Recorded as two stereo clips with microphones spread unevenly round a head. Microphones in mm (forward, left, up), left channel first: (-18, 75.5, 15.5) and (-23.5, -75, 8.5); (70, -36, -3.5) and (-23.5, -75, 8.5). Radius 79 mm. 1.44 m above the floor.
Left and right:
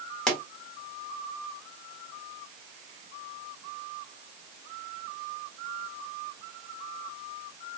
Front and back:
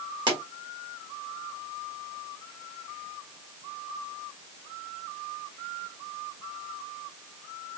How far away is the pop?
About 1.5 m.